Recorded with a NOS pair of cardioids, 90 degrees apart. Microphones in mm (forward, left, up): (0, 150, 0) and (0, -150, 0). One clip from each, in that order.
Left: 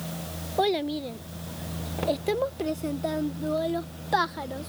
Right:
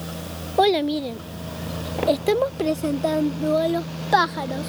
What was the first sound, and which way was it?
A child speaking, 30° right.